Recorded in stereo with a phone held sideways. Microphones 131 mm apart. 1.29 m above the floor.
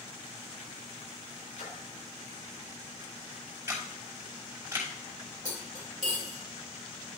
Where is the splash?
90° left, 5 m.